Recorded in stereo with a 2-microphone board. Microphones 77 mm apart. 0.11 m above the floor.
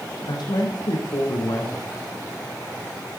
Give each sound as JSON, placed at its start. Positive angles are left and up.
{"t": 0.3, "sound": "a woman speaking", "side_deg": 65, "distance_m": 5.0}